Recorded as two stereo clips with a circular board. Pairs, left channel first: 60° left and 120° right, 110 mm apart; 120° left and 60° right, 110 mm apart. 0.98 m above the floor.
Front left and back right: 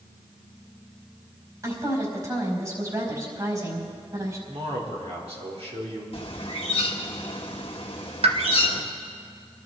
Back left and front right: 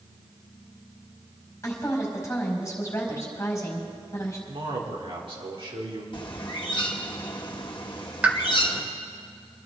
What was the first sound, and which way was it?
A woman speaking, 175° right.